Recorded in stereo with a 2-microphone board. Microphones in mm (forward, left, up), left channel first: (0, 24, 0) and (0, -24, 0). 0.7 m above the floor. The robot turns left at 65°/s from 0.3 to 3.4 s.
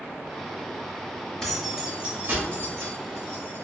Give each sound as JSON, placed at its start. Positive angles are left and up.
{"t": 1.4, "sound": "keys jangling", "side_deg": 15, "distance_m": 0.8}